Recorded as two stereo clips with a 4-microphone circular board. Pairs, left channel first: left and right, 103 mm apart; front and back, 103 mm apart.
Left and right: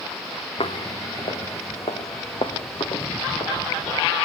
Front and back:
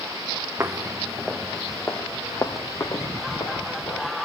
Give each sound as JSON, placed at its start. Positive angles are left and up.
{"t": 0.6, "sound": "footsteps", "azimuth_deg": 115, "distance_m": 1.3}